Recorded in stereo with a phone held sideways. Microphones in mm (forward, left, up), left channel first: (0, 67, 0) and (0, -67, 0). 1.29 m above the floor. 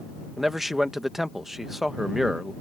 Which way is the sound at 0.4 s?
Centre (ahead or behind).